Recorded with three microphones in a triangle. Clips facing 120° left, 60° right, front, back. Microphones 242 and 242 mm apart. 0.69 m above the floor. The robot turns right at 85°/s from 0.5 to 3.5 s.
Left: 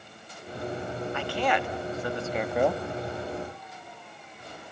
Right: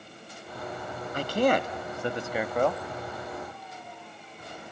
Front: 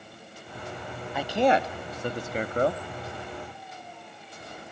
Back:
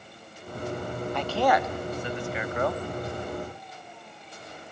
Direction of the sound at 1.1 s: 85° right.